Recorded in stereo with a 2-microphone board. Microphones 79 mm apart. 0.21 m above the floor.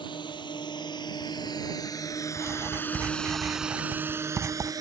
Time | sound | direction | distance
0.0 | a drone | 70° left (ahead or behind) | ?
2.4 | writing | 35° right (ahead or behind) | ?